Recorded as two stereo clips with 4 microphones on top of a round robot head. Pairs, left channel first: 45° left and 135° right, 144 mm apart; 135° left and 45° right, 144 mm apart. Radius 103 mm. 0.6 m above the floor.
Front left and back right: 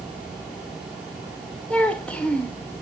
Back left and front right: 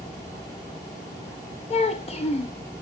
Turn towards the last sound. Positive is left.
turn(degrees=125)